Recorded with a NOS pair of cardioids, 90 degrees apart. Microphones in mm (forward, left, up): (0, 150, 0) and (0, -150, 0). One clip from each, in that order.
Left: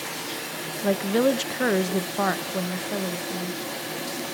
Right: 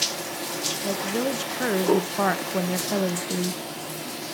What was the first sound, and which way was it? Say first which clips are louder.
A woman speaking: left 8 dB; 40° left.